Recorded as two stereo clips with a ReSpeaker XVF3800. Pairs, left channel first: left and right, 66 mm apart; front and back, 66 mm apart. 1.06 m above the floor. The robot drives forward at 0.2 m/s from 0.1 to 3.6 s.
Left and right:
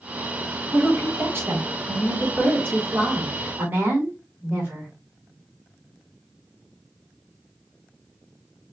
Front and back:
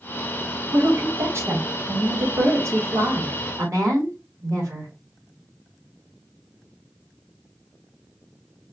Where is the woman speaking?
135° right, 1.5 m; by 4.9 s 145° right, 1.9 m.